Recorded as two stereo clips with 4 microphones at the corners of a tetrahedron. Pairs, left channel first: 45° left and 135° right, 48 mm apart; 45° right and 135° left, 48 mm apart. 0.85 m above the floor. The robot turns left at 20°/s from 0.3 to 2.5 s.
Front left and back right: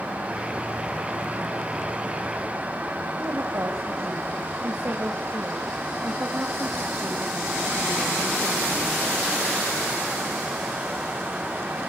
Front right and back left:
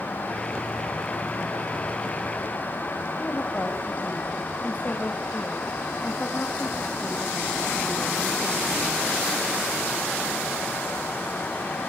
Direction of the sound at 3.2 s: 105° right.